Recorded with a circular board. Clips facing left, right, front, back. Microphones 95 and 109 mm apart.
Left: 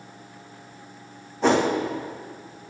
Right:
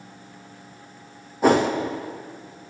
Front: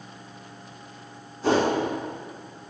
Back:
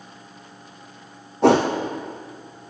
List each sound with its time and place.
1.4 s a whoosh: 170° right, 1.7 m